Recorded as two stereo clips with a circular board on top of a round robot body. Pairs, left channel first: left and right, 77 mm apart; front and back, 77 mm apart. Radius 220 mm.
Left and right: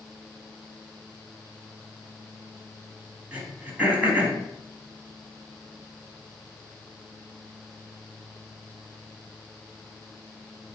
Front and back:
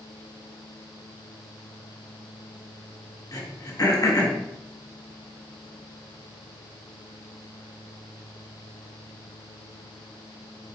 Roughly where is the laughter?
I don't hear laughter.